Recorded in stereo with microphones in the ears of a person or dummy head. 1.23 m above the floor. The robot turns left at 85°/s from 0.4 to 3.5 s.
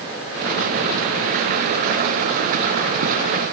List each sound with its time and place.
Only background noise.